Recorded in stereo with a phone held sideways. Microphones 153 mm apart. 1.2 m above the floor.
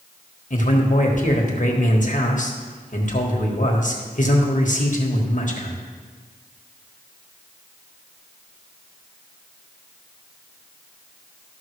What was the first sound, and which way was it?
A man speaking, 55° left (ahead or behind).